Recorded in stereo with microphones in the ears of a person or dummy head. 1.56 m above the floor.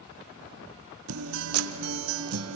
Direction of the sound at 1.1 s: 90° right.